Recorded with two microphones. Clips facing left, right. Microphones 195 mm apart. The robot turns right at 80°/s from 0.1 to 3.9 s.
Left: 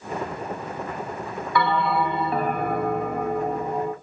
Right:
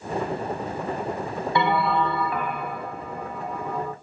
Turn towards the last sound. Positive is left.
turn(degrees=160)